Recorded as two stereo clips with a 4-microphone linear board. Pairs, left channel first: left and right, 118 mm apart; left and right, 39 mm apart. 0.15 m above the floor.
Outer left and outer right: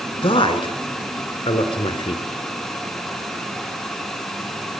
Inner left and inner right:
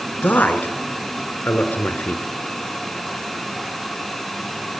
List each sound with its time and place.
0.2 s a man speaking: 50° left (ahead or behind), 1.7 m